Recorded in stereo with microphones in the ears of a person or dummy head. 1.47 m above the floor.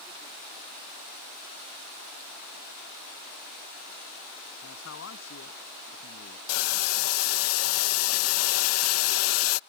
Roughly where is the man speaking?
Left.